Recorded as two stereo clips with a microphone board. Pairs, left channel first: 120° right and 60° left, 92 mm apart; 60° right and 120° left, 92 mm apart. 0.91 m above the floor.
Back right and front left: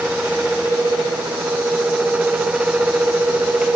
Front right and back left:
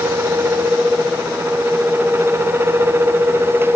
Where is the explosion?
No explosion in this recording.